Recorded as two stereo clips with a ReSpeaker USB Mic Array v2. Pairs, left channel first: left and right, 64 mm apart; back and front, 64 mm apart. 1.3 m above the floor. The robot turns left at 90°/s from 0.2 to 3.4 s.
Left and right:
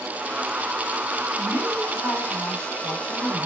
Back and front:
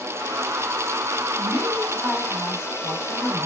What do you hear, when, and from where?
1.4 s a woman speaking: 25° right, 3.5 m; by 3.5 s 150° left, 3.5 m